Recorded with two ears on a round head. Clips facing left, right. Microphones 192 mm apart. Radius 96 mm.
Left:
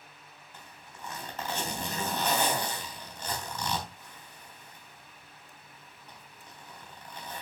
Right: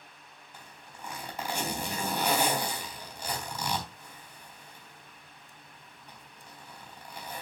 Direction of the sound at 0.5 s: 10° right (ahead or behind).